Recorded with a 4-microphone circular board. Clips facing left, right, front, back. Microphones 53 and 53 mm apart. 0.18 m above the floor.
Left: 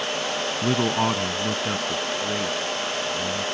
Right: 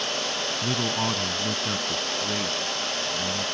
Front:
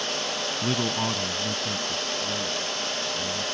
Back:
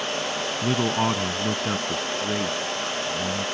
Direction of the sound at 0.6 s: 105° left.